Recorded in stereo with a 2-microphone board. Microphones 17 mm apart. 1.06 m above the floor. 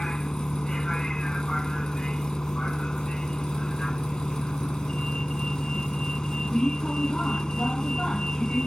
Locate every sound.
0.0 s a vehicle: 40° left (ahead or behind)